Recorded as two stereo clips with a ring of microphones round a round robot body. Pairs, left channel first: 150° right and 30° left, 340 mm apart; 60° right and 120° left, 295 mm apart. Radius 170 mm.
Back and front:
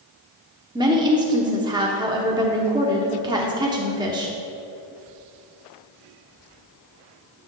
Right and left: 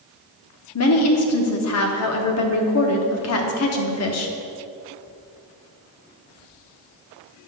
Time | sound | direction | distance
0.8 | a woman speaking | 45° right | 0.9 m